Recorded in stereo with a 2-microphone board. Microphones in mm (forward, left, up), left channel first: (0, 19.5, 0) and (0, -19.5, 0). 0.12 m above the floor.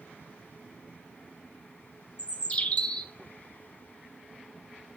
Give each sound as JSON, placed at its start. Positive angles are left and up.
{"t": 2.2, "sound": "a bird", "side_deg": 40, "distance_m": 0.5}